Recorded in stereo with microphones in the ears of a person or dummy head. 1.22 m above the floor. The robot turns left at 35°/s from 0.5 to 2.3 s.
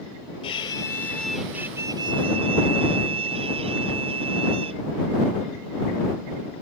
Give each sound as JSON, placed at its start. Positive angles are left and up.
{"t": 0.4, "sound": "a violin", "azimuth_deg": 30}